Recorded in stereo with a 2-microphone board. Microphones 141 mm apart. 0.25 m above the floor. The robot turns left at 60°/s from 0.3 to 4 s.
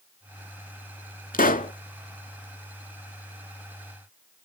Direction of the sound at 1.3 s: 85° left.